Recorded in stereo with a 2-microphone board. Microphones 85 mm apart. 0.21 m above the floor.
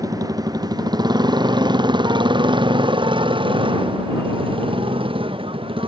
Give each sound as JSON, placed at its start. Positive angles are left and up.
{"t": 0.0, "sound": "a motorcycle", "side_deg": -40}